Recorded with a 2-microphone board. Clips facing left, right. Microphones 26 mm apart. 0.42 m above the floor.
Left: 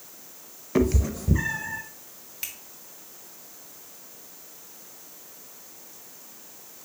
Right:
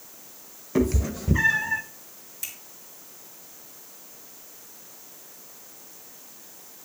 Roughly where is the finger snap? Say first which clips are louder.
Left 1 dB; left.